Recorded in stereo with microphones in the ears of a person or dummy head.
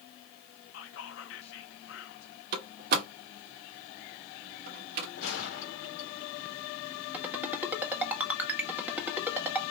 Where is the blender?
I don't hear a blender.